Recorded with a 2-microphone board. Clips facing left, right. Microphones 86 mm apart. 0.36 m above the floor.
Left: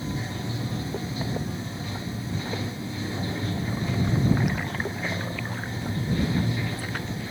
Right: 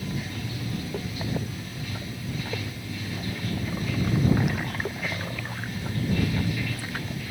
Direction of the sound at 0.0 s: 25° left (ahead or behind).